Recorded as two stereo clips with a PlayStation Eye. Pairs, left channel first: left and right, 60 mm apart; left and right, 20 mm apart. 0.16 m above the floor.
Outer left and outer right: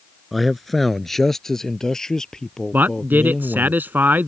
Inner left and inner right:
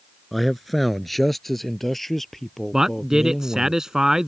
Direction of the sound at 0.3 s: Centre (ahead or behind).